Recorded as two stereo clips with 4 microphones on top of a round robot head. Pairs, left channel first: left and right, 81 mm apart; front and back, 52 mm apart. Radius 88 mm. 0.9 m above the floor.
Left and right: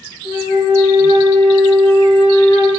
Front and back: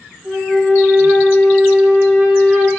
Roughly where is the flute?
Left.